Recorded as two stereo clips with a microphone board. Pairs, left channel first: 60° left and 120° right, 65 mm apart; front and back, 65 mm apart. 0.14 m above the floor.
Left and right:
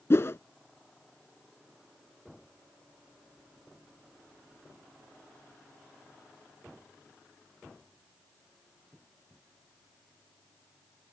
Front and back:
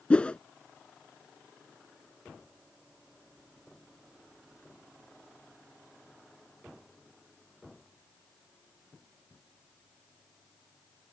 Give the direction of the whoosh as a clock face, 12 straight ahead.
10 o'clock.